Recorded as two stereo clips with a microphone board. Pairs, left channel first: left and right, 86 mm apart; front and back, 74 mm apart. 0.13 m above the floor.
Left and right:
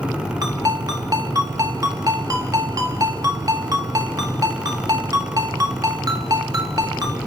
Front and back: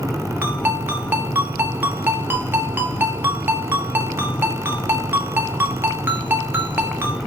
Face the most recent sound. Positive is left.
turn(degrees=-125)